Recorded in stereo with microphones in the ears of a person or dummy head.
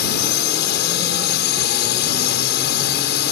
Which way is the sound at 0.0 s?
60° left (ahead or behind).